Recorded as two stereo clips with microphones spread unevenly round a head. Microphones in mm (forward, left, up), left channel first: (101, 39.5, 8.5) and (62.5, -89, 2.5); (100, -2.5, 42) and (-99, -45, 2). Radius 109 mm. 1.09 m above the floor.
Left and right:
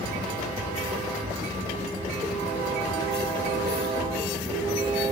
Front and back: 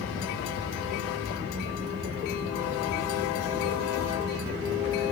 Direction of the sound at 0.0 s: 145° left.